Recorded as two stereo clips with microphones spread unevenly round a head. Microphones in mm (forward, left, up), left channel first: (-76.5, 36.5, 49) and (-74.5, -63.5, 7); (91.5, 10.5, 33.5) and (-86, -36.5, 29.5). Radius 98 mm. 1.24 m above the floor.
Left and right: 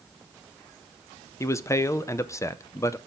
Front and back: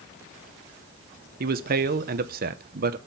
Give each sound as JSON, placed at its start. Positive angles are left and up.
{"t": 1.4, "sound": "a man speaking", "azimuth_deg": 160, "distance_m": 0.7}